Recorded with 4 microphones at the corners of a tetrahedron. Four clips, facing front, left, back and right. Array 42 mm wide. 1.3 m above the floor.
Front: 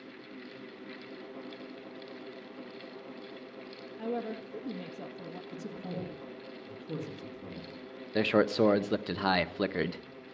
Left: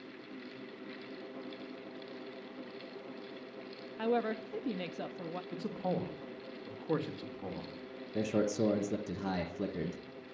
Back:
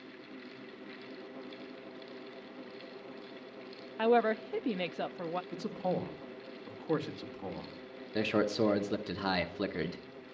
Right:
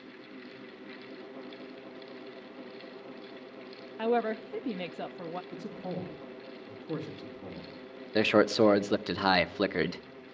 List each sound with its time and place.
4.0 s a woman speaking: 165° right, 0.7 m
5.5 s a man speaking: 150° left, 1.9 m
8.2 s a man speaking: 75° right, 0.9 m